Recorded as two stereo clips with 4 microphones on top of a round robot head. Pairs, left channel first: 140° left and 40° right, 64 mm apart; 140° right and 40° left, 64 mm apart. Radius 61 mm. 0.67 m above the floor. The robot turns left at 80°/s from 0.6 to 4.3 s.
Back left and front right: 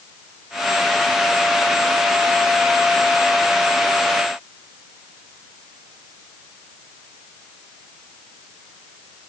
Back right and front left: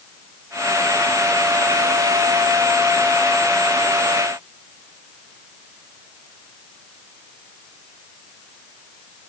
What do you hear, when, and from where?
Only background noise.